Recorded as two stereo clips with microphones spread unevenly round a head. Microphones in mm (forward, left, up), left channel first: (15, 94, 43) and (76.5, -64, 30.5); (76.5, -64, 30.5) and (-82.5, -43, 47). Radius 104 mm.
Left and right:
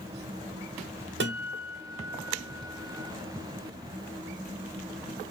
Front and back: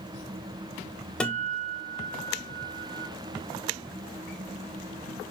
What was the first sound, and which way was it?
A guitar, 95° right.